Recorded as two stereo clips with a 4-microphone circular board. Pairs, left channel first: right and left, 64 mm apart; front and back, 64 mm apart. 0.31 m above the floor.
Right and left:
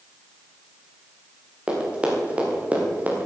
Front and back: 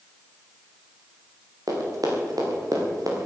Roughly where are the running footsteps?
Behind.